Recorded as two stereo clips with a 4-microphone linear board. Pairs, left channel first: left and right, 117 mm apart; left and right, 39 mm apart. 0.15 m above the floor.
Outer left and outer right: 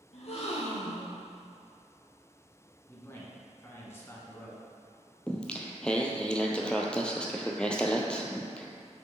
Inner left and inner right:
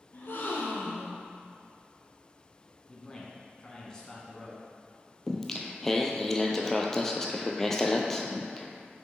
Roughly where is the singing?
Centre.